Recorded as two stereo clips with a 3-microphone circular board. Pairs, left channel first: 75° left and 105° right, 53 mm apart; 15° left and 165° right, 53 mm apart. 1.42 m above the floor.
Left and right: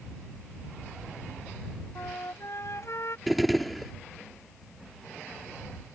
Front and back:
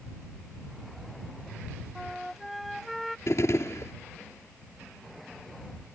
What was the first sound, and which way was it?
A flute, 105° left.